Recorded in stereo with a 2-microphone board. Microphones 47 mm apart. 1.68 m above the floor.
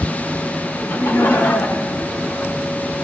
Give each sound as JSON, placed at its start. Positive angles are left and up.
{"t": 0.8, "sound": "laughter", "side_deg": 80, "distance_m": 2.5}